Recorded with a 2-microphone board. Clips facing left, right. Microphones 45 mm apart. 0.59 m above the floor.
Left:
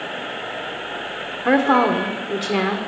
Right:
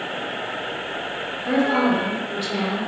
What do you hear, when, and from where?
1.4 s a woman speaking: 60° left (ahead or behind), 1.2 m